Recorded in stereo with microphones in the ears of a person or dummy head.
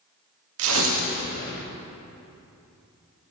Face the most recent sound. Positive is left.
turn(degrees=-80)